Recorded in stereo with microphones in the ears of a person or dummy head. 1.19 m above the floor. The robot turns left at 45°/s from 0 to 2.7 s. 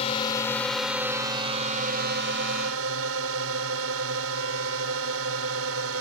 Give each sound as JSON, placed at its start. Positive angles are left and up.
{"t": 0.0, "sound": "a drone", "azimuth_deg": 35}